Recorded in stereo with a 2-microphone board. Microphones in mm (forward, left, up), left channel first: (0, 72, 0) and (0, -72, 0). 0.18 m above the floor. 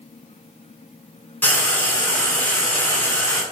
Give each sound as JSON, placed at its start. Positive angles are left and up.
{"t": 1.4, "sound": "frying", "side_deg": 10, "distance_m": 0.8}